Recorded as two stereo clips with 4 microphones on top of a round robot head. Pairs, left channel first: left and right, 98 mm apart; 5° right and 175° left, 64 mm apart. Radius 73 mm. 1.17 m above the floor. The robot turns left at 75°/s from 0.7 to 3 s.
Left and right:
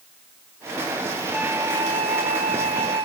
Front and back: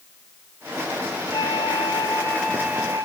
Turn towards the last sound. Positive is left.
turn(degrees=-125)